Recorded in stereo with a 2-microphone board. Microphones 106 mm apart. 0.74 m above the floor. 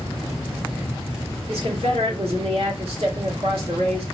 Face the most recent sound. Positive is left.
turn(degrees=-65)  # may be behind; listen again after turning